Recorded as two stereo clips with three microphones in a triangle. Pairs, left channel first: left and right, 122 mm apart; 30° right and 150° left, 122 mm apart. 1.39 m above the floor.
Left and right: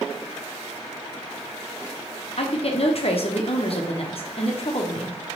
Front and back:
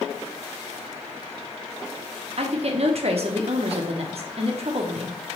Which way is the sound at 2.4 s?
120° left.